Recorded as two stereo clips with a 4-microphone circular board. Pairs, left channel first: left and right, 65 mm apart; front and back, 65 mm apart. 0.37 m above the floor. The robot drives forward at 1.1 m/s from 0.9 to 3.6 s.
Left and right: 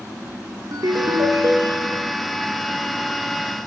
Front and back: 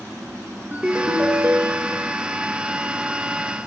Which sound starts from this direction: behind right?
A ringtone, at 0.7 s.